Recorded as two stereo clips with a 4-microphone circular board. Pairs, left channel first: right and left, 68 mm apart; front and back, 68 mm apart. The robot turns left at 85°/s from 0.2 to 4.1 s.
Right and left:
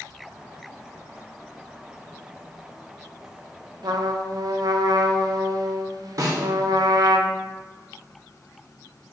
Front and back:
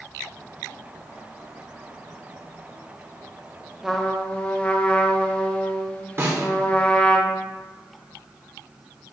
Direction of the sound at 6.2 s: 130° left.